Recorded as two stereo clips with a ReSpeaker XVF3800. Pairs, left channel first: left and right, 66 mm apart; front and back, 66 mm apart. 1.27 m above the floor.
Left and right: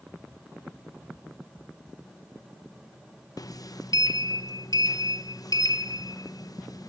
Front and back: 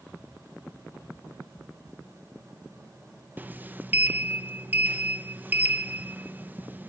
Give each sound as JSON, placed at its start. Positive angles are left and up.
{"t": 3.4, "sound": "a sliding door", "azimuth_deg": 115, "distance_m": 0.9}